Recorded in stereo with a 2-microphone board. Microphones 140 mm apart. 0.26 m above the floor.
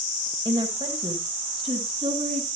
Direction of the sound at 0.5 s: 30° right (ahead or behind).